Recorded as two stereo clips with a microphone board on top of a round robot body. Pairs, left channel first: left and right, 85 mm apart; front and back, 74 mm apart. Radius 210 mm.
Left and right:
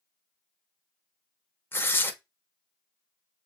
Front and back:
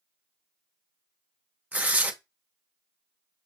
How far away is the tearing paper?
About 1.0 m.